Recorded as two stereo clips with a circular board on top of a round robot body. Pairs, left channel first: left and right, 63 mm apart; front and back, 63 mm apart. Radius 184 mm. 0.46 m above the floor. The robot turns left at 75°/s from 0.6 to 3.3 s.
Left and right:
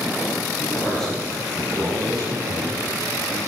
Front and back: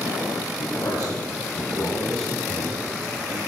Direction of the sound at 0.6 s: 40° left.